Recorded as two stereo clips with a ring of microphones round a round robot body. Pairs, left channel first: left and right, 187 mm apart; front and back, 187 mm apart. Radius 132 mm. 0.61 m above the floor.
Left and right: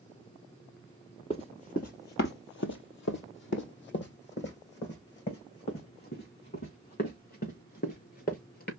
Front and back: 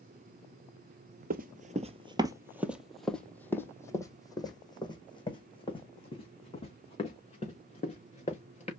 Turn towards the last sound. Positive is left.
turn(degrees=55)